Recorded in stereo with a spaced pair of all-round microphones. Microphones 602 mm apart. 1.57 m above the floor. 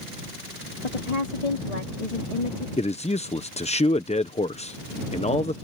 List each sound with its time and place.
0.8 s a woman speaking: 85° left; by 2.7 s 65° left (ahead or behind)
2.8 s a man speaking: 10° left (ahead or behind)